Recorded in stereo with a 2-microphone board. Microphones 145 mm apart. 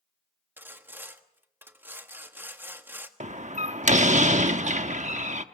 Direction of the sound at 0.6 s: 15° right (ahead or behind).